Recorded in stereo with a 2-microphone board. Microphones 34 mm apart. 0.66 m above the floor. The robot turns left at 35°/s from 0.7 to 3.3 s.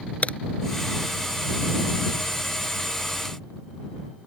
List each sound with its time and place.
0.2 s a crack: 40° left (ahead or behind)